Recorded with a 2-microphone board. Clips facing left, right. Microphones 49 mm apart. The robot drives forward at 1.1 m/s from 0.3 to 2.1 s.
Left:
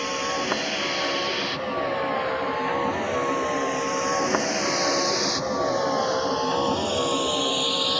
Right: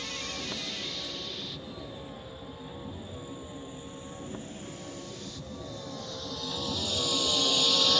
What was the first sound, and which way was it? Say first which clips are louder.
A vehicle: left 12 dB; 55° left (ahead or behind).